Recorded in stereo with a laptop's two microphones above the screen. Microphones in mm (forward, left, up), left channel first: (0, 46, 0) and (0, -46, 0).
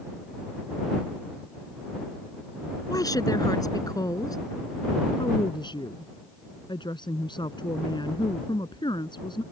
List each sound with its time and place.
2.9 s a woman speaking: 40° left (ahead or behind)
5.2 s a woman speaking: 50° left (ahead or behind)